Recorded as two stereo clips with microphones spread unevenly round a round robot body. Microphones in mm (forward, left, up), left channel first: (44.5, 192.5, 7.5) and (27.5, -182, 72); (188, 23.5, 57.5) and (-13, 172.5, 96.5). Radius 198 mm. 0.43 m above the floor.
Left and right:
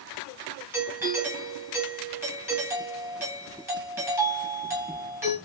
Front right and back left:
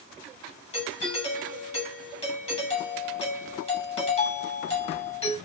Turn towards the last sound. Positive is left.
turn(degrees=0)